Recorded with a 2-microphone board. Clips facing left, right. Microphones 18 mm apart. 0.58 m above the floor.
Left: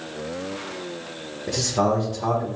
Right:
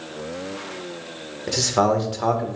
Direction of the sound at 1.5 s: 45° right (ahead or behind).